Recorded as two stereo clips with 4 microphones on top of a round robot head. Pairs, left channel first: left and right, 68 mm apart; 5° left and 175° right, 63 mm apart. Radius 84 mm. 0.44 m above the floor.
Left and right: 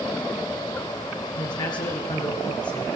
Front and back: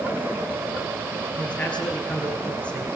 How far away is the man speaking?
About 9.5 m.